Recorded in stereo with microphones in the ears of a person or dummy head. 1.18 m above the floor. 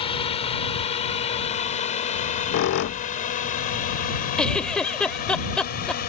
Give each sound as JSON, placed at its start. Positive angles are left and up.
{"t": 0.0, "sound": "a drone", "side_deg": 30}
{"t": 2.1, "sound": "a squeak", "side_deg": 60}
{"t": 4.4, "sound": "a giggle", "side_deg": 5}